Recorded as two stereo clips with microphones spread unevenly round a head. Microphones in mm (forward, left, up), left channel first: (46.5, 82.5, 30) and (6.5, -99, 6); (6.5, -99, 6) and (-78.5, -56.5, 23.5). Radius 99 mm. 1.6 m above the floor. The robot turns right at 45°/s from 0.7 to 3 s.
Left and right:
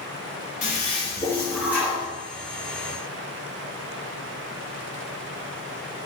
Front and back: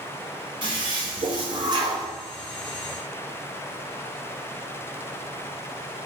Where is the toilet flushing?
125° left, 0.7 m; by 2.1 s 175° right, 0.7 m.